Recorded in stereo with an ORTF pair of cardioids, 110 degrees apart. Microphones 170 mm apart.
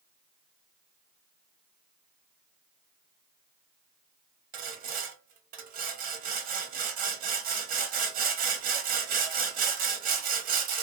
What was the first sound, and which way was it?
Sawing, 60° right.